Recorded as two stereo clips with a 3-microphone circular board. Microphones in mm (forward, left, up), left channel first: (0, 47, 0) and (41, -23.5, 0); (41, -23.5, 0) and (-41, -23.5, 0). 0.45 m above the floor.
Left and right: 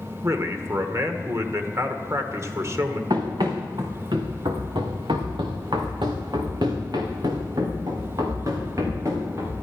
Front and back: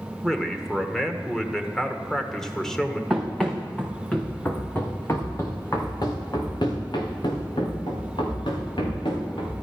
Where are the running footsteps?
90° right, 3 m; by 9.5 s 5° right, 4.5 m.